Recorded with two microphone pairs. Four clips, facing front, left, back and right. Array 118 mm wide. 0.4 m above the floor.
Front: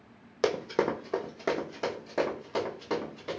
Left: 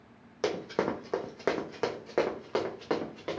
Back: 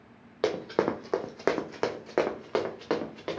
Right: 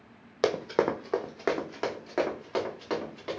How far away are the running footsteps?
About 0.6 m.